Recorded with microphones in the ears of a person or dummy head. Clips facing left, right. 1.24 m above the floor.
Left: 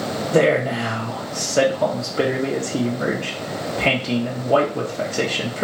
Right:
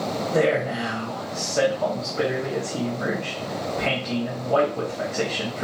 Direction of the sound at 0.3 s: 55° left (ahead or behind).